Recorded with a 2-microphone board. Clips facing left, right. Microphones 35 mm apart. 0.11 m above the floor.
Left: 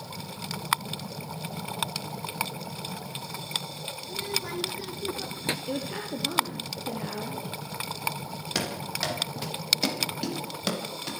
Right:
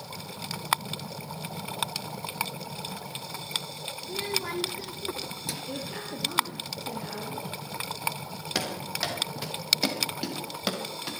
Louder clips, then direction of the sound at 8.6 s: Even; 5° right (ahead or behind).